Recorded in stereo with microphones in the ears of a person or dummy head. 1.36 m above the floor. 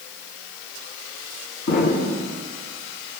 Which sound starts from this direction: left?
An explosion, at 1.7 s.